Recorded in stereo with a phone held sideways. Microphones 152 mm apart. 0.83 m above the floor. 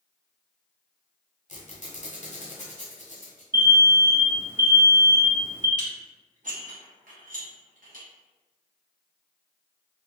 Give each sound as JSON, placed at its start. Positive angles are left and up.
{"t": 1.5, "sound": "a squeak", "side_deg": 55, "distance_m": 0.9}
{"t": 3.5, "sound": "an alarm", "side_deg": -15, "distance_m": 0.7}
{"t": 5.8, "sound": "dishes clattering", "side_deg": -60, "distance_m": 0.8}